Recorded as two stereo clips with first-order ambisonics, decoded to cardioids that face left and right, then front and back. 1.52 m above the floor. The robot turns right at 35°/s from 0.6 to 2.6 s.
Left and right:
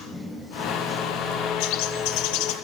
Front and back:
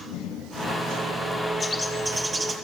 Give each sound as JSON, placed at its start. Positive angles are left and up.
{"t": 1.6, "sound": "a bird", "azimuth_deg": 75, "distance_m": 0.8}